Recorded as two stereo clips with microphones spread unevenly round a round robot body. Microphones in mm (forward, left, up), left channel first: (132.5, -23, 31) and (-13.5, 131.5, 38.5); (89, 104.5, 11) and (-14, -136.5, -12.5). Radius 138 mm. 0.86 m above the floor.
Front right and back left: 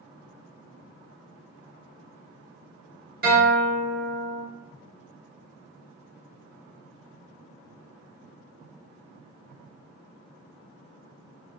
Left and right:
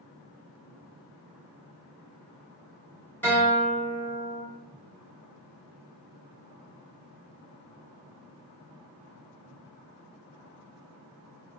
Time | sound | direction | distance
3.2 | a guitar | 150° left | 1.3 m